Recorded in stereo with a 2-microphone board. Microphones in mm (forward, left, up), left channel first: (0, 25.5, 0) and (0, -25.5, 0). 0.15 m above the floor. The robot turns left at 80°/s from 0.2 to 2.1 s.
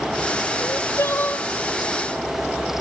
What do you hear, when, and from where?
0.6 s crying: 95° left, 1.4 m; by 1.5 s 25° left, 1.4 m